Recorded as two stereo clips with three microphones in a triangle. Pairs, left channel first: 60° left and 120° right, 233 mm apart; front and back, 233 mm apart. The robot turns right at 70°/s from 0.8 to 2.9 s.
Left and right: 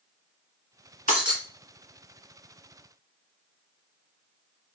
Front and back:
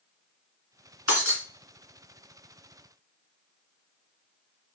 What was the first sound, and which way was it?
Breaking glass, 5° left.